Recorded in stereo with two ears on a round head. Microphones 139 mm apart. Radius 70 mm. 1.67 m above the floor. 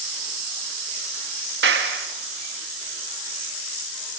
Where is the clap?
80° right, 2.5 m.